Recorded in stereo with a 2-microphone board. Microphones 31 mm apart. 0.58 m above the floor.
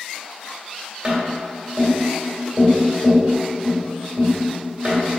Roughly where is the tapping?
Right.